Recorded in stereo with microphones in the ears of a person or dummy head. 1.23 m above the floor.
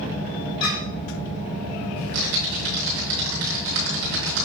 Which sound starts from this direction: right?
Typing on a keyboard, at 2.0 s.